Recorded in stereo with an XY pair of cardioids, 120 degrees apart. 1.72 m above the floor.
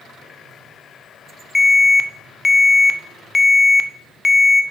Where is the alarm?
15° left, 1.0 m.